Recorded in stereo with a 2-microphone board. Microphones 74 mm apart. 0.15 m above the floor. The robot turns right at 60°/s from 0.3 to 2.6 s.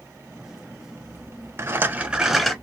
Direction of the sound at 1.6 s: 45° right.